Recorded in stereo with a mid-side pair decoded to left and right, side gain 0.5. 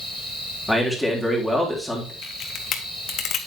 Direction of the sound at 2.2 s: 60° left.